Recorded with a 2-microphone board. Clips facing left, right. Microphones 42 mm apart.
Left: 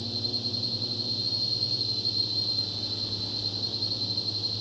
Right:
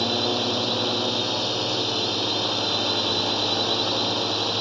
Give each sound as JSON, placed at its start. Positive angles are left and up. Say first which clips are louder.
{"t": 0.0, "sound": "a drone", "louder": "right 11 dB", "side_deg": -65}